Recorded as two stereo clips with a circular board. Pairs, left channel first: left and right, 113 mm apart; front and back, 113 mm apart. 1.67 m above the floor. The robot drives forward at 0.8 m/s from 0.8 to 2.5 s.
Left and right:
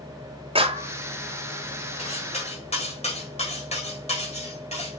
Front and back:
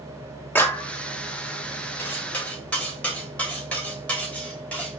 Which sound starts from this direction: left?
Cutlery clinking, at 2.0 s.